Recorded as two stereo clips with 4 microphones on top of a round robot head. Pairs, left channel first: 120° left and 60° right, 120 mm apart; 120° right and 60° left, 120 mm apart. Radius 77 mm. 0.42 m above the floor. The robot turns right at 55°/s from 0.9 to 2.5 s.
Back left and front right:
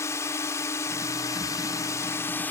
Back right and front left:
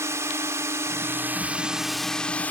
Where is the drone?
90° left; by 2.5 s straight behind.